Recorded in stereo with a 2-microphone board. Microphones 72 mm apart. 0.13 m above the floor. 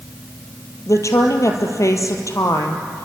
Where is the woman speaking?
50° left (ahead or behind), 3 m.